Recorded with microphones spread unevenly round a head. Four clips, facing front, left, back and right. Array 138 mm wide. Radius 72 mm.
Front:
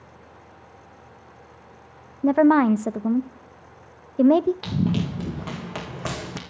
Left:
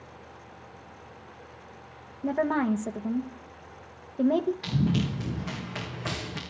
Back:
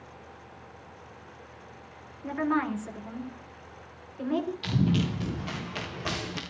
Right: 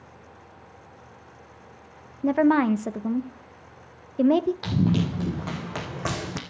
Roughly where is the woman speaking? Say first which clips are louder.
Right 6 dB, front 12 dB; ahead.